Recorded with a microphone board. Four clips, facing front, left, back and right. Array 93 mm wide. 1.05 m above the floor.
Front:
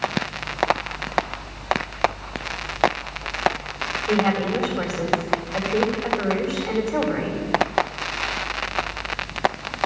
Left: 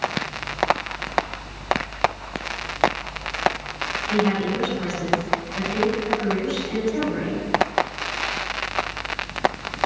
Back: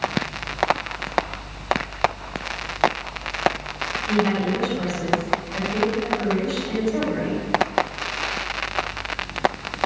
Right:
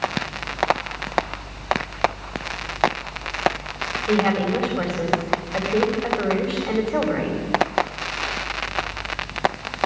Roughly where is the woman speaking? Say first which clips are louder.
Right 2 dB, front 1 dB; ahead right.